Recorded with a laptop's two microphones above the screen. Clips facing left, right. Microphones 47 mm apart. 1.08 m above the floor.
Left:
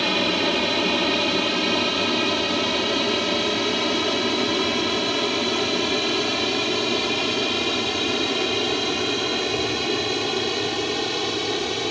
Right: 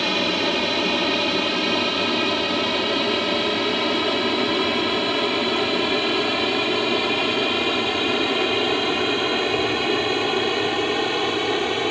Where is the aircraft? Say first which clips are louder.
Even; centre (ahead or behind); by 11.9 s 20° right (ahead or behind).